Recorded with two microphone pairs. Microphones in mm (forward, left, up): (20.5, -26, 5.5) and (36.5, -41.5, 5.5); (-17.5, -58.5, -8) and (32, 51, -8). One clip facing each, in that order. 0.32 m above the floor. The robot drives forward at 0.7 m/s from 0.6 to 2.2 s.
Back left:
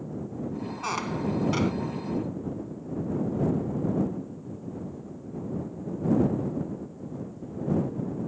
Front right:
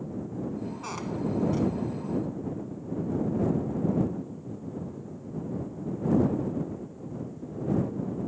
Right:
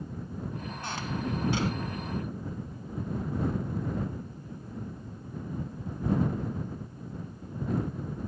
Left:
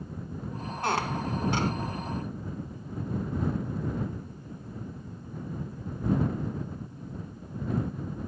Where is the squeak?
65° left; by 1.7 s 105° left.